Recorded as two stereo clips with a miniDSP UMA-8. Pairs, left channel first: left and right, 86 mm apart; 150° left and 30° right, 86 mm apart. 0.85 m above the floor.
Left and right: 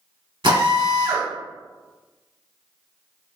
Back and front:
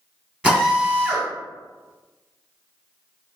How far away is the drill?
About 1.5 m.